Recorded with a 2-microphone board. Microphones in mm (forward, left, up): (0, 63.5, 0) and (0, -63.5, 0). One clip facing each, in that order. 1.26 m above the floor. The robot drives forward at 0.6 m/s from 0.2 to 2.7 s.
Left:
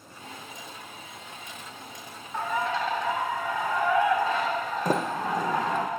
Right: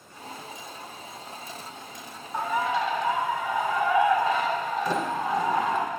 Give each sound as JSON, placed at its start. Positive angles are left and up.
{"t": 2.3, "sound": "a bird", "side_deg": -15, "distance_m": 1.0}
{"t": 4.8, "sound": "a sliding door", "side_deg": 45, "distance_m": 0.6}